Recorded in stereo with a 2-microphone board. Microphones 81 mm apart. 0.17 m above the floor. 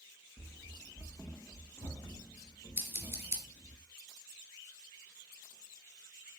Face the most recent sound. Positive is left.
turn(degrees=-30)  # may be behind; listen again after turning